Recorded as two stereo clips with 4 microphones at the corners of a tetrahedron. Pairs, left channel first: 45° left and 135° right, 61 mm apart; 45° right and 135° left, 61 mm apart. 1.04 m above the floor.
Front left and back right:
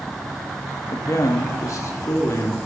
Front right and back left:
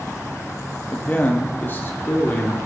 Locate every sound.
0.9 s a man speaking: 15° left, 1.6 m; by 2.6 s 5° left, 2.5 m